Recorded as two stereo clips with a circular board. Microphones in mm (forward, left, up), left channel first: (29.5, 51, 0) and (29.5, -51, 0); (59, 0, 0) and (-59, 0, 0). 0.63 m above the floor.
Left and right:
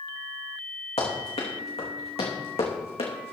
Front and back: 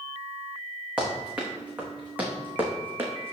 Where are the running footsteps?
100° left, 3.5 m; by 3.3 s 110° left, 2.5 m.